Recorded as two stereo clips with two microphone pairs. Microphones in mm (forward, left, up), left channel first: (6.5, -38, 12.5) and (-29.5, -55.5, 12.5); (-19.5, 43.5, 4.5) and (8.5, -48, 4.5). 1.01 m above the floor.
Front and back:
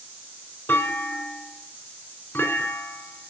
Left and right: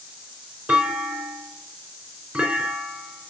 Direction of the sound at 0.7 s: 5° right.